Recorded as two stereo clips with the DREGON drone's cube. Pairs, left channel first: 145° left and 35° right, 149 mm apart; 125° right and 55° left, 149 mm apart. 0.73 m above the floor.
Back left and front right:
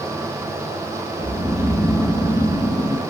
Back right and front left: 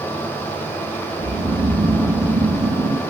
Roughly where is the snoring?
Ahead left.